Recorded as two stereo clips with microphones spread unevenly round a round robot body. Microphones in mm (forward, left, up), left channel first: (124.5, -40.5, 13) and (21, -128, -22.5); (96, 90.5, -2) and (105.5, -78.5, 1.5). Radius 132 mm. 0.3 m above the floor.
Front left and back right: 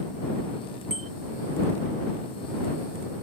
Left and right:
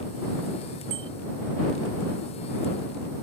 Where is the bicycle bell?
105° right.